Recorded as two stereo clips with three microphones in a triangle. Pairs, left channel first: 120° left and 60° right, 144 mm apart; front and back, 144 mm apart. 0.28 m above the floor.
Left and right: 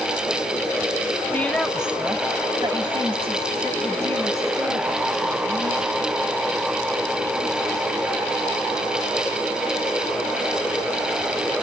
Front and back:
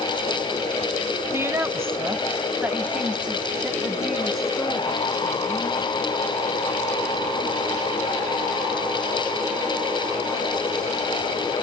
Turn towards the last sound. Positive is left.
turn(degrees=-90)